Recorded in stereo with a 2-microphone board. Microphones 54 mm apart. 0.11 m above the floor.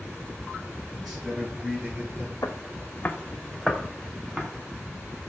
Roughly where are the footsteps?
Left.